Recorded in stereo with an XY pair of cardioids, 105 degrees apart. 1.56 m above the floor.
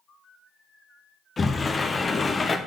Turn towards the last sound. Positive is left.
turn(degrees=30)